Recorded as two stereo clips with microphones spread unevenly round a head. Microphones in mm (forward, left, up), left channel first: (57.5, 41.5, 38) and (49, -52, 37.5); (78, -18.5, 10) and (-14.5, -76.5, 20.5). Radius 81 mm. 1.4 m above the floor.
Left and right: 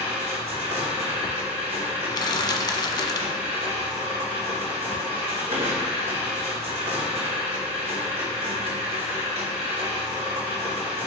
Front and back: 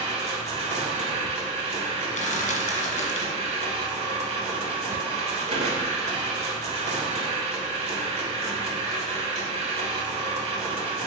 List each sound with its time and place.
0.0 s a machine running: 140° right, 2 m
2.1 s crushing: 40° left, 1.3 m